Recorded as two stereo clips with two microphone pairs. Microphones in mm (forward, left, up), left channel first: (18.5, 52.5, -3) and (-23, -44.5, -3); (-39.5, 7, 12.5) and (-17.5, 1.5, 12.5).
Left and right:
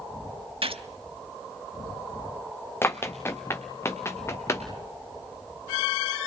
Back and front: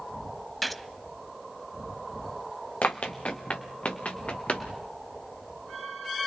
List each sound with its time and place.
0.6 s a gunshot: 115° right, 0.8 m
2.8 s running footsteps: 135° left, 1.6 m; by 4.7 s 130° left, 2.5 m